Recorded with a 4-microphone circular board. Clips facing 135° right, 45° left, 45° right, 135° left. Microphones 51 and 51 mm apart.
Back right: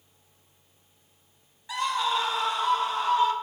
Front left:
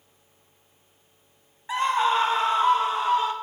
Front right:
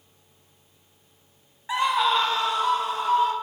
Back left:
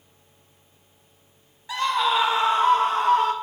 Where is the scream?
10° left, 1.0 m; by 3.3 s 105° left, 1.8 m.